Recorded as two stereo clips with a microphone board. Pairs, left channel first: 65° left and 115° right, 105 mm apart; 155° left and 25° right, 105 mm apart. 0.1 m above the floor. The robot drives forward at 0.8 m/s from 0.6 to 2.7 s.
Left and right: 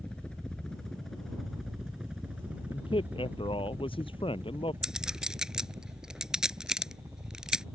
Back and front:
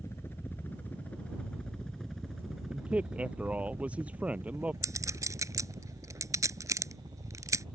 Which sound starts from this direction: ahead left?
A man speaking, at 2.7 s.